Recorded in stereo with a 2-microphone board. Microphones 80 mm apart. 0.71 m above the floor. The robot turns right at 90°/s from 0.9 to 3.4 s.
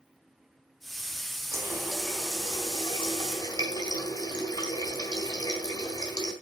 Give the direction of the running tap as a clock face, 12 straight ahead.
1 o'clock.